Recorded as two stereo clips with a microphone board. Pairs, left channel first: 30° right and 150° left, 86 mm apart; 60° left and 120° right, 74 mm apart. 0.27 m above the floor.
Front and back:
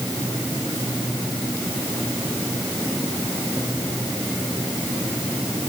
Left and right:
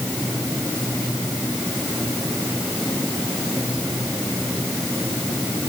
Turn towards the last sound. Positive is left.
No sound to turn to.